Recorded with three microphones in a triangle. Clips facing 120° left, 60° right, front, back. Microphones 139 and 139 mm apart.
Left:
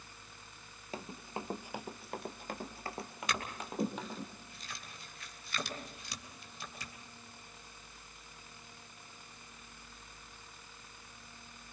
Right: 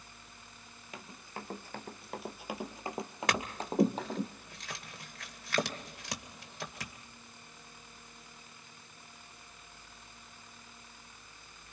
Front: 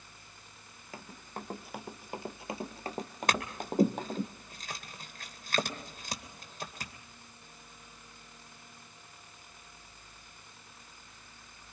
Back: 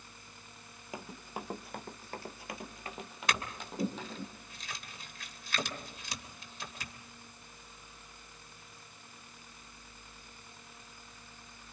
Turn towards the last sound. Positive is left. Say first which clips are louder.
# right 5 dB, front 3 dB
turn(degrees=-45)